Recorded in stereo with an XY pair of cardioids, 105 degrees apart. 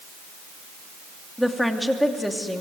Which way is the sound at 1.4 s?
Straight ahead.